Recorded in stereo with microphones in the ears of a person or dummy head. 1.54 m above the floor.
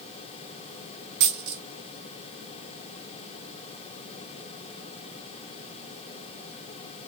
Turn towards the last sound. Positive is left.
turn(degrees=-55)  # may be behind; listen again after turning